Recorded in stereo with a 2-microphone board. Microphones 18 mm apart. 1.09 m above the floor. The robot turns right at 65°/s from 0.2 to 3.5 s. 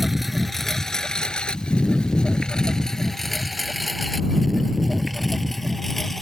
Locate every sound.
0.0 s a lawn mower: 5° right (ahead or behind); by 6.2 s 10° left (ahead or behind)